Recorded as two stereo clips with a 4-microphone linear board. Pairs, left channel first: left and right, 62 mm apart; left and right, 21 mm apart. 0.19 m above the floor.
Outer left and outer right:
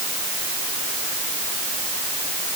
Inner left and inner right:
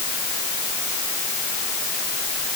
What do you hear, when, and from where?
Only background noise.